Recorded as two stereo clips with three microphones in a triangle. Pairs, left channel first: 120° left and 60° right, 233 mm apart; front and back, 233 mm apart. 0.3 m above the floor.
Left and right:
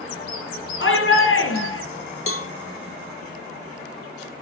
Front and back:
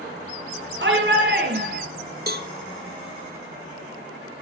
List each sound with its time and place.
0.8 s a shout: 150° left, 6.5 m; by 1.8 s 135° left, 6.5 m
2.3 s a cowbell: 140° left, 1.0 m